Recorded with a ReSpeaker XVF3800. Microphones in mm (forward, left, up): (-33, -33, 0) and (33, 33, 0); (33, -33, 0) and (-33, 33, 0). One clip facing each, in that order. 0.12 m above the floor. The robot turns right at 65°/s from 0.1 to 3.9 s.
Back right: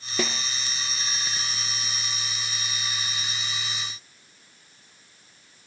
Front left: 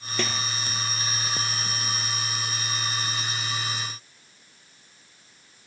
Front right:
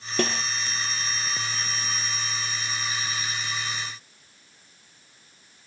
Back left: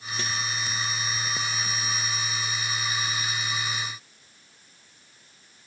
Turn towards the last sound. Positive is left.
turn(degrees=-175)